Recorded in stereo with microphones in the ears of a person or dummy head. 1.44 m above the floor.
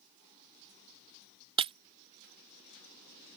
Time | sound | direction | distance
1.6 | breaking glass | 30° right (ahead or behind) | ?